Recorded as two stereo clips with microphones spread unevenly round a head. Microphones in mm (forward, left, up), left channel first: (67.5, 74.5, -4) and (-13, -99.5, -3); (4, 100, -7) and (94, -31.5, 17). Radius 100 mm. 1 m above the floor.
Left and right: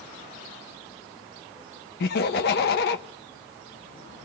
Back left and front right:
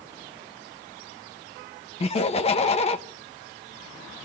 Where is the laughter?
90° left, 1.2 m.